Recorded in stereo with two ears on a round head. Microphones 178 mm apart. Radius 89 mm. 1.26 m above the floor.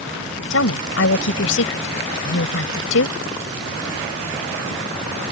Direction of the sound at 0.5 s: 70° left (ahead or behind).